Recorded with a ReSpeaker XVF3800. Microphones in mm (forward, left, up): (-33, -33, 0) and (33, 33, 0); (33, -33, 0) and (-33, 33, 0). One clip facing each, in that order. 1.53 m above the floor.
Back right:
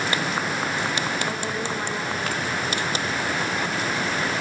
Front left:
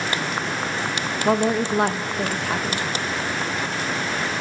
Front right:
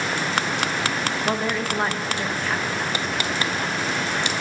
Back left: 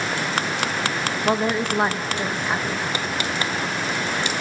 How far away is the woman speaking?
About 1.3 m.